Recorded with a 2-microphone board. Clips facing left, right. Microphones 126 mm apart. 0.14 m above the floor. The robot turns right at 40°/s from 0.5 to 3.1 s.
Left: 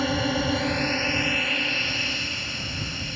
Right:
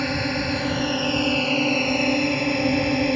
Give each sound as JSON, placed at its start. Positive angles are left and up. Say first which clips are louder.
{"t": 0.0, "sound": "a drone", "louder": "even", "azimuth_deg": 175}